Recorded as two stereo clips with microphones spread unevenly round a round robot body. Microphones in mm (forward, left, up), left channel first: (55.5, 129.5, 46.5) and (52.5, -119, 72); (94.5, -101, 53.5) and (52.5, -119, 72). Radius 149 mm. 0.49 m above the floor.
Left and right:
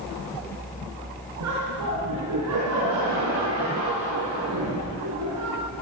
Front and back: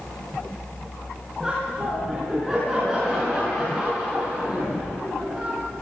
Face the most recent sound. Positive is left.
turn(degrees=-75)